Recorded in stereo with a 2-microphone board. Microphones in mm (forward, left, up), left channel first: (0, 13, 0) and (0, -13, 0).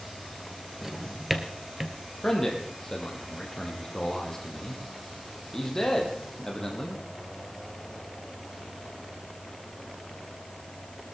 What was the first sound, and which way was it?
A drawer, 15° right (ahead or behind).